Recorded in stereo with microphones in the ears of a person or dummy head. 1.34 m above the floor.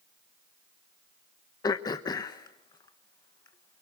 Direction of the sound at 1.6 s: 25° left (ahead or behind).